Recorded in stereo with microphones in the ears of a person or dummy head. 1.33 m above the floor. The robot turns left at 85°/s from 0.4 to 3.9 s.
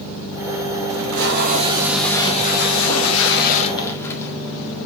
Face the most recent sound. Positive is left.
turn(degrees=15)